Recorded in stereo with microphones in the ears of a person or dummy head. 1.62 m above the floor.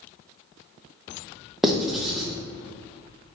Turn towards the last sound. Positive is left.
turn(degrees=5)  # may be behind; listen again after turning